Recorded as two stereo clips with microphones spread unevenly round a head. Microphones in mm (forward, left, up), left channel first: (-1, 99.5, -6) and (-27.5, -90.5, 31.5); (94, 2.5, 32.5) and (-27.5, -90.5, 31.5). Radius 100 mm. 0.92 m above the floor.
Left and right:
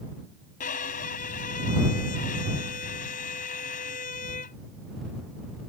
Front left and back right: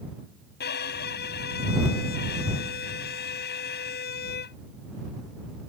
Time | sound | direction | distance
0.6 | a violin | 30° left | ?